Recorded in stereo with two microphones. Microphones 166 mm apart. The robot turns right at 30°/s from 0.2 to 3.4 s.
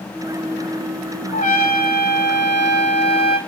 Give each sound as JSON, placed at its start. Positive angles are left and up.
{"t": 1.3, "sound": "a trumpet", "azimuth_deg": 50, "distance_m": 2.0}